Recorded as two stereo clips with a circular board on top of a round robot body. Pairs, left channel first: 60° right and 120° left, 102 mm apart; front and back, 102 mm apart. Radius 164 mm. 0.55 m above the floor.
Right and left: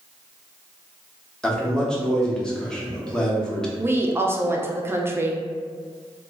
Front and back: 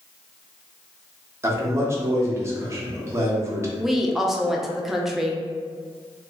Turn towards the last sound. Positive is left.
turn(degrees=100)